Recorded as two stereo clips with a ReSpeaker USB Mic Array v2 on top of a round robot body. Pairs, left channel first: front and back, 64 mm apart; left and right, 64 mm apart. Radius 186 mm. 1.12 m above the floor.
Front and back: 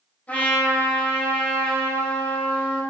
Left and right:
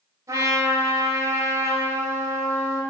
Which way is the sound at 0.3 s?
65° right.